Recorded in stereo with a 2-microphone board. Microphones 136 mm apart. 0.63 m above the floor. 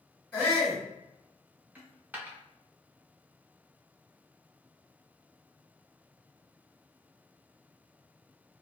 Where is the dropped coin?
15° right (ahead or behind), 0.7 m.